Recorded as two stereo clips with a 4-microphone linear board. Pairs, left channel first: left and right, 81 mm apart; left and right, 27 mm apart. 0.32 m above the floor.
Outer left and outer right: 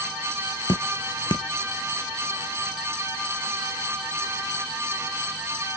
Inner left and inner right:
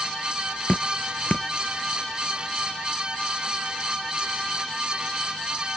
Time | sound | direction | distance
0.7 | dripping | 80° left | ?